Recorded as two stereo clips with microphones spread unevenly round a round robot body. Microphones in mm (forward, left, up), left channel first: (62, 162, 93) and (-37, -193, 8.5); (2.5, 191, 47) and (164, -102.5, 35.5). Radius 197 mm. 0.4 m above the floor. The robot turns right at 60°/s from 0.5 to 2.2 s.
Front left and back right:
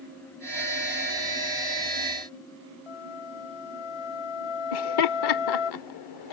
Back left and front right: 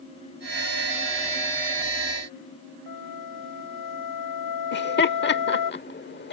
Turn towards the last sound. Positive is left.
turn(degrees=65)